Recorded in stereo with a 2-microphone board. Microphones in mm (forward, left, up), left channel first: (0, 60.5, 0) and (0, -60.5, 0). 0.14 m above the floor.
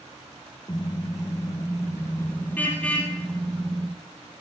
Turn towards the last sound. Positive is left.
turn(degrees=5)  # may be behind; listen again after turning